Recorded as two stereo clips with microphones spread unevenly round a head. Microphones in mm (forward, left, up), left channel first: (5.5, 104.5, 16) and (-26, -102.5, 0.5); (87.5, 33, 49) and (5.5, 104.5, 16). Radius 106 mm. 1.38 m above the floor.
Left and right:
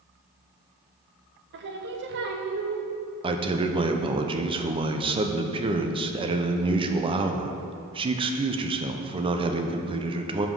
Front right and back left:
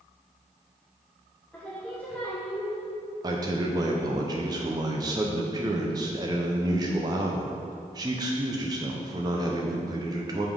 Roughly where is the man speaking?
Behind.